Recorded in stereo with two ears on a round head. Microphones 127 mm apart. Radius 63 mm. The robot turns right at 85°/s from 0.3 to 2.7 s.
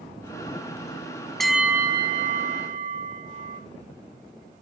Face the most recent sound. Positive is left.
turn(degrees=-75)